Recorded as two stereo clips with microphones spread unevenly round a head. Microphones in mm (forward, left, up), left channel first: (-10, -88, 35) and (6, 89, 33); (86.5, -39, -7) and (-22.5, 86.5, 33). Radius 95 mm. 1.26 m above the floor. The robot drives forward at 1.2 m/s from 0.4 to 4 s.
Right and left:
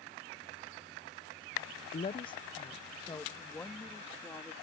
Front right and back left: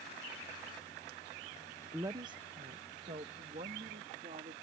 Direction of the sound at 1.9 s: 140° right.